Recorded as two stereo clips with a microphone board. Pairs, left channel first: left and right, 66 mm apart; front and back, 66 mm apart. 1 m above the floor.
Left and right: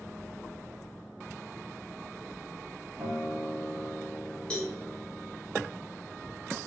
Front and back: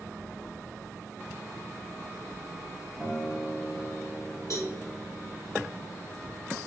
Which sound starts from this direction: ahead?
A cowbell, at 4.5 s.